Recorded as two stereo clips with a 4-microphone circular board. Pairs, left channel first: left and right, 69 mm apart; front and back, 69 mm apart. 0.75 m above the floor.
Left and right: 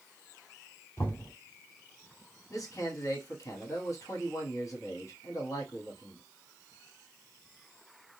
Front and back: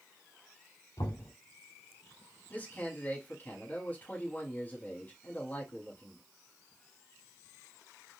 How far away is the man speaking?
About 1.6 m.